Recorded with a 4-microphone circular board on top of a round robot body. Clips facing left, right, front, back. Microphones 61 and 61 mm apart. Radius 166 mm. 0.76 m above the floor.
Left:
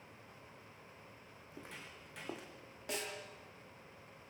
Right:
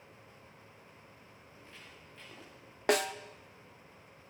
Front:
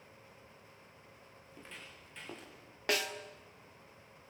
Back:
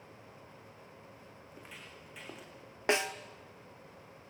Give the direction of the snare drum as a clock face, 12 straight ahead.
4 o'clock.